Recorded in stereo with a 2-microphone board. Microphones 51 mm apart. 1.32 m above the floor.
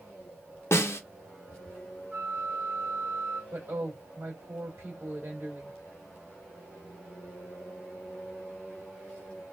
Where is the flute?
30° right (ahead or behind), 1.0 m.